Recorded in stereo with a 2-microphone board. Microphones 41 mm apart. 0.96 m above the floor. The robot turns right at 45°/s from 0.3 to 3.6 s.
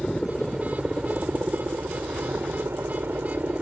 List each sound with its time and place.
0.0 s a helicopter: 175° left; by 3.6 s 35° right